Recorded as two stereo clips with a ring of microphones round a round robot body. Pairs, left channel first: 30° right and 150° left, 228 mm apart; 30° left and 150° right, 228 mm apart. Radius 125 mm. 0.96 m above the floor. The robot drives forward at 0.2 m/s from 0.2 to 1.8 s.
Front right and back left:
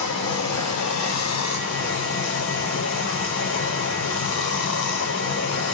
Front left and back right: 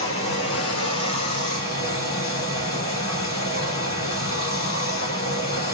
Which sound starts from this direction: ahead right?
Running water, at 0.0 s.